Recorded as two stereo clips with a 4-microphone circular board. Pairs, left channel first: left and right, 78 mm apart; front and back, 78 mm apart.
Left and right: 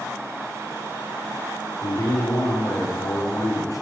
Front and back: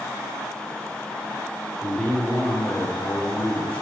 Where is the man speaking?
70° left, 2 m.